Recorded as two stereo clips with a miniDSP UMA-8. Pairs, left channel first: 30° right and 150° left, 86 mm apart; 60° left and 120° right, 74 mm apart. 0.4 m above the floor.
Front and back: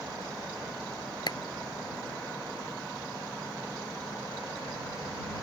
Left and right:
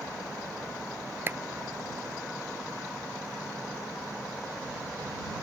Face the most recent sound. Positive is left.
turn(degrees=-60)